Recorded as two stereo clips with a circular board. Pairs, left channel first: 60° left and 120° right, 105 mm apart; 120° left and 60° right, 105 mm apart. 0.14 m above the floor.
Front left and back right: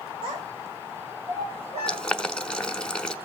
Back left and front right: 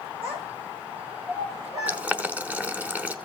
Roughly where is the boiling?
Ahead.